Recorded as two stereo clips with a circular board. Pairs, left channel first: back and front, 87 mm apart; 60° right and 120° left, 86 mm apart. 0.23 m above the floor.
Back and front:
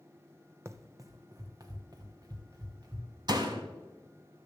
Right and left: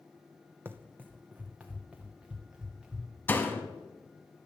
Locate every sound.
0.7 s running footsteps: 55° left, 0.6 m; by 3.1 s 40° left, 1.8 m
3.3 s a door slam: straight ahead, 1.0 m